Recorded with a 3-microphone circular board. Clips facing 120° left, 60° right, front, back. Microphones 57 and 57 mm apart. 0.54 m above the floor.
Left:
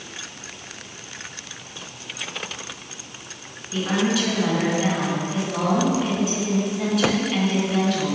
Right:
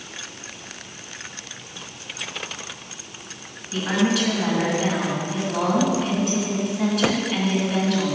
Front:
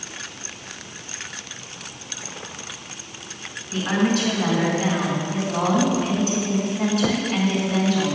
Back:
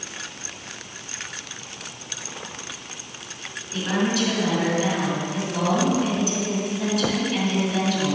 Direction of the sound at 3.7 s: 35° left.